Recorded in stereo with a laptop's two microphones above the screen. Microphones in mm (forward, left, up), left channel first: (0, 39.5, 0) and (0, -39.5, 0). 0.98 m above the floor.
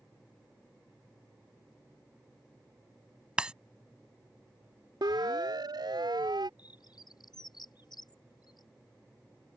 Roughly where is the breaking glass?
Centre.